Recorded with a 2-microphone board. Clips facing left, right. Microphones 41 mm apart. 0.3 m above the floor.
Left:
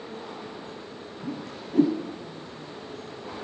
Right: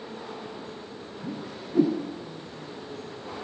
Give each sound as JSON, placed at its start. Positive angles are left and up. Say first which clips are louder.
{"t": 1.2, "sound": "a whoosh", "louder": "left 1 dB", "side_deg": 55, "distance_m": 7.5}